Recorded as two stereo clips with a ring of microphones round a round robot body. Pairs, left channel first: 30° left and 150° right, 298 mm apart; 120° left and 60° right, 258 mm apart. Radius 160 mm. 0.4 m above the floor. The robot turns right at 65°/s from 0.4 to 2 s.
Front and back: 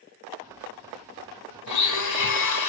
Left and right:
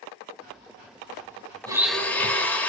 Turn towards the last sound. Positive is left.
turn(degrees=35)